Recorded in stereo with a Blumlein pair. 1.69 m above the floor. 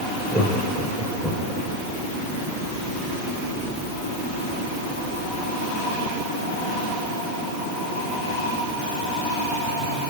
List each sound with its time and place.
0.3 s laughter: 5° right, 6.5 m